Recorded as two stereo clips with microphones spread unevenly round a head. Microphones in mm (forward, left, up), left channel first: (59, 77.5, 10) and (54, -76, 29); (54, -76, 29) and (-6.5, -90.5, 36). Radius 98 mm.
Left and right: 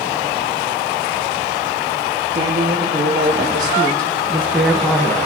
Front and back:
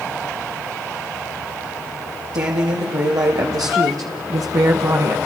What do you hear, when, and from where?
2.3 s a woman speaking: 150° right, 2 m; by 5.2 s 155° left, 1.0 m